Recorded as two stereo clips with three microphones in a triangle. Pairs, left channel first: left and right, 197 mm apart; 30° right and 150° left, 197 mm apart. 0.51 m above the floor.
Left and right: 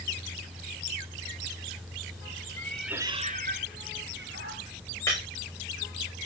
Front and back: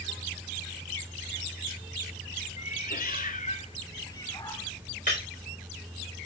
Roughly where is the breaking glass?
Ahead.